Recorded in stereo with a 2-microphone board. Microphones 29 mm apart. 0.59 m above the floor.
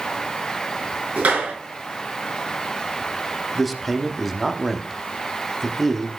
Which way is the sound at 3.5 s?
5° right (ahead or behind).